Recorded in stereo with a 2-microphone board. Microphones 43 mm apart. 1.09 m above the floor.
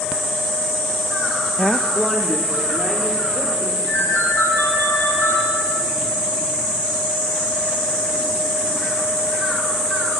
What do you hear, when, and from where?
1.6 s a woman speaking: 30° left (ahead or behind), 0.6 m; by 3.7 s 15° right (ahead or behind), 3.5 m
3.8 s a ringtone: 65° left (ahead or behind), 5 m